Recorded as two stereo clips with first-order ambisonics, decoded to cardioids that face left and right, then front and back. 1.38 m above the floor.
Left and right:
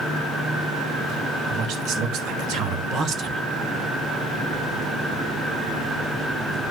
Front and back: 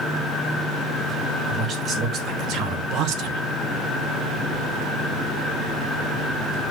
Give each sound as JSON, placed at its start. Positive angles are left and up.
{"t": 1.4, "sound": "a man speaking", "azimuth_deg": -125, "distance_m": 2.5}